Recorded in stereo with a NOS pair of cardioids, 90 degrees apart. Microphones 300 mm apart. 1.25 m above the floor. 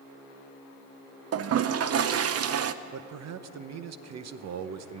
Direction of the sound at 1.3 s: 50° right.